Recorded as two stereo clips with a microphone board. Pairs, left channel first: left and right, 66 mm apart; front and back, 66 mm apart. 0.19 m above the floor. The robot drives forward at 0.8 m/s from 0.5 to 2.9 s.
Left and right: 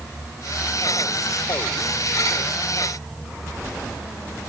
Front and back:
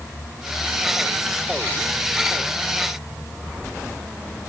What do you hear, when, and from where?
Only background noise.